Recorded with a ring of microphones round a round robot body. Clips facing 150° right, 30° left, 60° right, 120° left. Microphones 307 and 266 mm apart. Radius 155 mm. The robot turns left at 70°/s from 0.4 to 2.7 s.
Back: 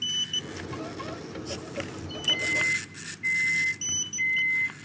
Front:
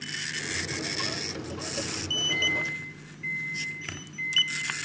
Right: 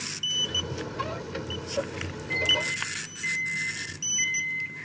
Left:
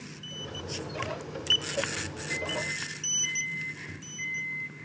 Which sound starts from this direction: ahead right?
A microwave, at 2.3 s.